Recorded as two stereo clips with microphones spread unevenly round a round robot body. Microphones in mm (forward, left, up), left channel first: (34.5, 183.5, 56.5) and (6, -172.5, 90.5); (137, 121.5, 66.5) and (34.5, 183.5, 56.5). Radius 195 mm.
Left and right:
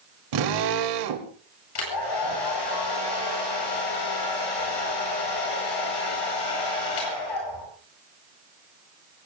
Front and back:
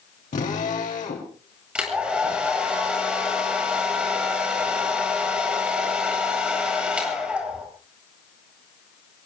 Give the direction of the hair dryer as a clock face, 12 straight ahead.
10 o'clock.